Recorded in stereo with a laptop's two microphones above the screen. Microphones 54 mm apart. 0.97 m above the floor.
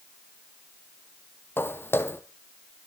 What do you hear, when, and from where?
1.6 s footsteps: 45° left (ahead or behind), 1.3 m